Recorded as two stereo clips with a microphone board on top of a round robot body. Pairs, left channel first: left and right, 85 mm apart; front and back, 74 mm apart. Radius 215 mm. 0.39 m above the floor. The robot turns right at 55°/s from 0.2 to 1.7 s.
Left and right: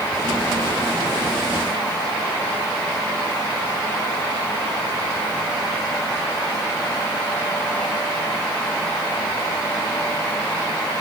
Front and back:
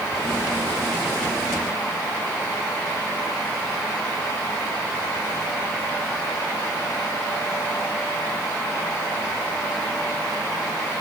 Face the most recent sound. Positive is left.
No sound to turn to.